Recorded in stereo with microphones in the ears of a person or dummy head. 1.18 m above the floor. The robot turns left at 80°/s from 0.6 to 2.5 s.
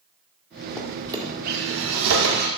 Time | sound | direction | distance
0.8 | a drawer | 10° left (ahead or behind) | 1.5 m